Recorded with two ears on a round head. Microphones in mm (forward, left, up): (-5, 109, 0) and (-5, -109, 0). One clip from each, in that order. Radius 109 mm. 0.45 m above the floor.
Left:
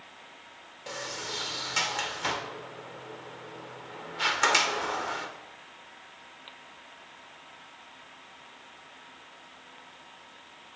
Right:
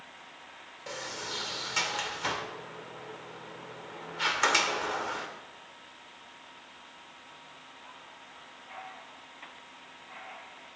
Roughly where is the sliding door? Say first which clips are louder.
Left 2 dB; centre.